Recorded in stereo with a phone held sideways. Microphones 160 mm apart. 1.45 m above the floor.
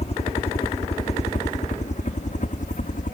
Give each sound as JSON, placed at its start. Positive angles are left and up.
{"t": 0.0, "sound": "a helicopter", "side_deg": 40}